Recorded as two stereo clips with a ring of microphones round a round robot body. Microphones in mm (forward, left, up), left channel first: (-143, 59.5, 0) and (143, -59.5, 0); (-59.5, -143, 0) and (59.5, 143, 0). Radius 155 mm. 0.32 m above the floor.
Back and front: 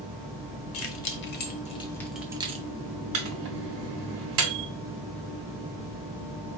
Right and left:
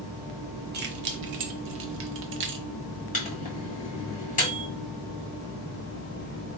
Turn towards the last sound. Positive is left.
turn(degrees=-55)